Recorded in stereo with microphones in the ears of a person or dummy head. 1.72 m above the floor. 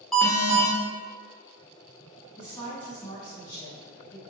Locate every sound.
0.1 s an alarm: centre (ahead or behind), 0.7 m
2.4 s a woman speaking: 20° left (ahead or behind), 1.5 m